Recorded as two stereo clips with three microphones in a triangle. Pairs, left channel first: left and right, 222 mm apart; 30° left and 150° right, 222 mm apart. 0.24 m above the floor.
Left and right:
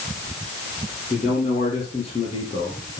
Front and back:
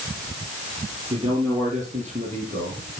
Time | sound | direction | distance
1.1 | a man speaking | 150° left | 6 m